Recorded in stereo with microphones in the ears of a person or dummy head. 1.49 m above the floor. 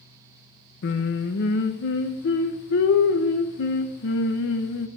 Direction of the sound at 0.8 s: 50° left (ahead or behind).